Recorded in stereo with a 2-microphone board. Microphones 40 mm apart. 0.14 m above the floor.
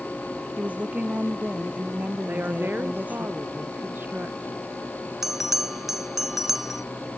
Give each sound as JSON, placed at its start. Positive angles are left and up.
{"t": 0.6, "sound": "a woman speaking", "side_deg": -40}
{"t": 2.3, "sound": "a woman speaking", "side_deg": -55}
{"t": 5.2, "sound": "a bell", "side_deg": -10}